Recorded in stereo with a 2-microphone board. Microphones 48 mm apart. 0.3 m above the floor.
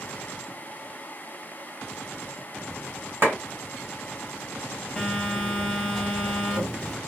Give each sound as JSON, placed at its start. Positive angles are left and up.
{"t": 3.2, "sound": "a clap", "side_deg": -45, "distance_m": 1.7}
{"t": 5.0, "sound": "a phone buzzing", "side_deg": 5, "distance_m": 0.9}